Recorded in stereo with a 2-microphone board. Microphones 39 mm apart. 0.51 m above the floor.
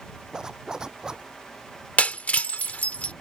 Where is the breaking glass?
35° left (ahead or behind).